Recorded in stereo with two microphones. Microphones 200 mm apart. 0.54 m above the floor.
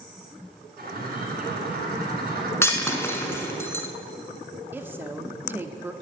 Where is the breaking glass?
15° left (ahead or behind), 0.9 m.